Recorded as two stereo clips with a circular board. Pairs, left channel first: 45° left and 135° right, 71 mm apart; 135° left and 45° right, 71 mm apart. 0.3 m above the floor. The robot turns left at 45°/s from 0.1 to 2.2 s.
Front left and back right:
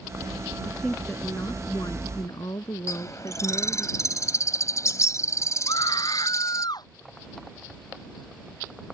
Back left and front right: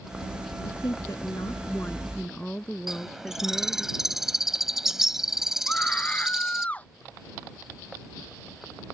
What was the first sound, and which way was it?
A woman speaking, 130° left.